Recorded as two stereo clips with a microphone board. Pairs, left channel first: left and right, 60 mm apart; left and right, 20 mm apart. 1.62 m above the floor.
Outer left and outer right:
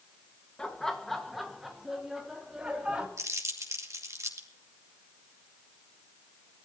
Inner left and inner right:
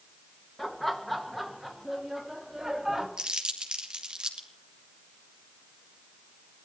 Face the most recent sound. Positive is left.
turn(degrees=-55)  # may be behind; listen again after turning